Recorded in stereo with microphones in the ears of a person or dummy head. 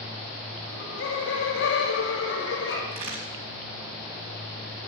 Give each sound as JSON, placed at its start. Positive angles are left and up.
{"t": 0.6, "sound": "laughter", "side_deg": 70, "distance_m": 6.0}
{"t": 2.9, "sound": "a crack", "side_deg": -40, "distance_m": 4.5}